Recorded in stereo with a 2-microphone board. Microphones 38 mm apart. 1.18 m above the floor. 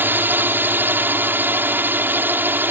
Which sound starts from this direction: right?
A drone, at 0.0 s.